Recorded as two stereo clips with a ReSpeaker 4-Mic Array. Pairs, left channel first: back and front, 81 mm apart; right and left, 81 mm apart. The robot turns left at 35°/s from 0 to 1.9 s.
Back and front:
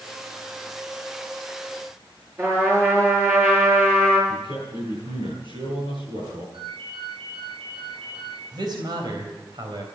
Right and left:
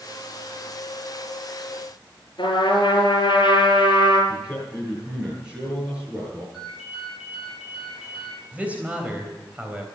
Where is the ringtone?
5° left, 8 m.